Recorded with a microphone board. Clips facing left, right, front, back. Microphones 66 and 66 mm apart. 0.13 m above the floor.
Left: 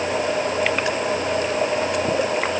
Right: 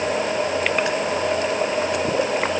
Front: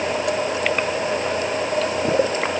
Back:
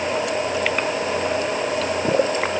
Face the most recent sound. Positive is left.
No sound to turn to.